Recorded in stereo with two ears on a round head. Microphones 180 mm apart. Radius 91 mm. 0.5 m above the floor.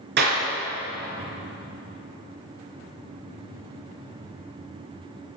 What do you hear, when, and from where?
0.2 s a clap: 55° right (ahead or behind), 4.5 m